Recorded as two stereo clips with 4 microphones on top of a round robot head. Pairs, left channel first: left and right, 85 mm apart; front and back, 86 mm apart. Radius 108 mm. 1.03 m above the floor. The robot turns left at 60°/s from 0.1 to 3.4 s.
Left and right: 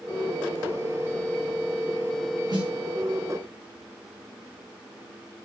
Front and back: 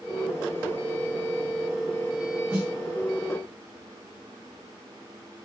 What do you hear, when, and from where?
2.5 s a snare drum: 120° right, 1.3 m; by 2.7 s 130° right, 1.3 m